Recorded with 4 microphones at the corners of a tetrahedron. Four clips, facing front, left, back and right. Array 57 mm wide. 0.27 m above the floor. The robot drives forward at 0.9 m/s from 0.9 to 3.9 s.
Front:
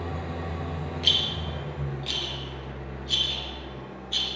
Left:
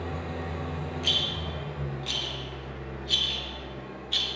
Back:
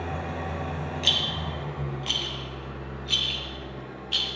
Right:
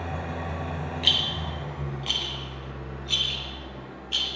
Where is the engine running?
130° right, 1.7 m; by 4.4 s 165° right, 4 m.